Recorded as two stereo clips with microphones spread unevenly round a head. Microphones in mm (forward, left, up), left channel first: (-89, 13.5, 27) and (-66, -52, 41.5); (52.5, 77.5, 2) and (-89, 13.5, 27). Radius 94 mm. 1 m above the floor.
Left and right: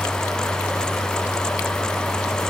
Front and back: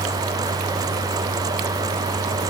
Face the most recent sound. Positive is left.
No sound to turn to.